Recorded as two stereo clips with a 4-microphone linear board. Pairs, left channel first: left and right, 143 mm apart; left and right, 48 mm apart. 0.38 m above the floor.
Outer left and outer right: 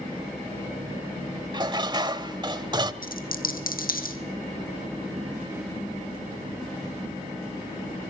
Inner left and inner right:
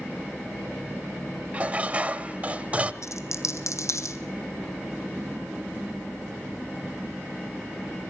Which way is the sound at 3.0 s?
75° left (ahead or behind).